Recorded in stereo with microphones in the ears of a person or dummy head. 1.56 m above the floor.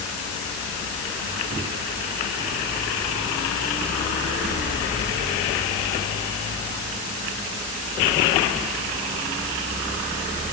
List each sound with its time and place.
Only background noise.